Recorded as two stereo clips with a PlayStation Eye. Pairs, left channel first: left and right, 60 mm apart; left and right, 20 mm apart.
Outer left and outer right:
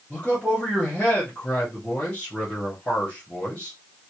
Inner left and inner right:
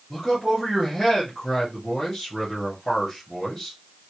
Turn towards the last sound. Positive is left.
turn(degrees=20)  # may be behind; listen again after turning